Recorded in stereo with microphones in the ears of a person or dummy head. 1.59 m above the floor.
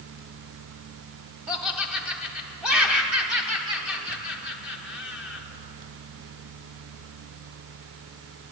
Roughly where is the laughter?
Centre.